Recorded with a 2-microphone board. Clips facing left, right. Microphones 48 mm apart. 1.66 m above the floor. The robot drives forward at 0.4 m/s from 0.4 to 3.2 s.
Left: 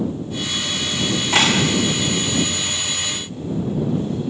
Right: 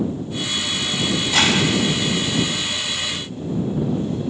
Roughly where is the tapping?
Left.